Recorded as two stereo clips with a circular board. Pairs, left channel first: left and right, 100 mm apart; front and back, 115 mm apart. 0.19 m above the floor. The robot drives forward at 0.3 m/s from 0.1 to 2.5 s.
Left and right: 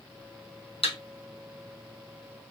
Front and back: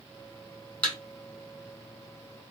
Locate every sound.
0.8 s a thud: 75° left, 1.7 m; by 1.0 s 80° left, 1.7 m